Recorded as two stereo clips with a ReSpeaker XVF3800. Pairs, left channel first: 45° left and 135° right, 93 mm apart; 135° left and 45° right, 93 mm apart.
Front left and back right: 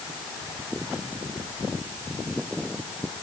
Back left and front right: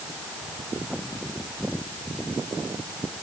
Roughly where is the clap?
No clap in this recording.